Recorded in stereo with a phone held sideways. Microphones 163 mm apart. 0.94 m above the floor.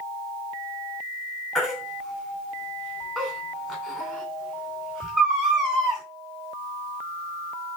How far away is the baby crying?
About 2.5 m.